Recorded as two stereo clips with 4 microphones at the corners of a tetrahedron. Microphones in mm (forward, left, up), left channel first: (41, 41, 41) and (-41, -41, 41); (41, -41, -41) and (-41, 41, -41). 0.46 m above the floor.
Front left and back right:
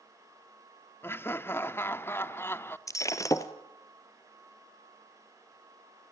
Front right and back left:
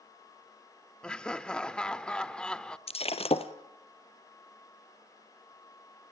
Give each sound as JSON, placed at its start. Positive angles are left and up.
{"t": 1.0, "sound": "laughter", "azimuth_deg": 20, "distance_m": 0.8}
{"t": 2.9, "sound": "breaking glass", "azimuth_deg": -15, "distance_m": 1.4}